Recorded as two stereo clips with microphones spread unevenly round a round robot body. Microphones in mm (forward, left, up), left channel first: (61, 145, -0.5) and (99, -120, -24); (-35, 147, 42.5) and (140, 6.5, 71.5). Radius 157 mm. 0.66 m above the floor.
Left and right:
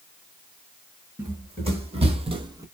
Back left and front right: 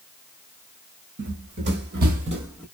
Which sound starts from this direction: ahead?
Running footsteps, at 1.2 s.